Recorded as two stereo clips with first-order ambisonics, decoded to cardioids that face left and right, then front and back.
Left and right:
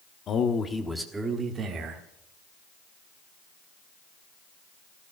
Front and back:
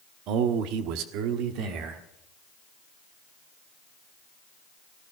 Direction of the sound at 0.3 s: 145° left.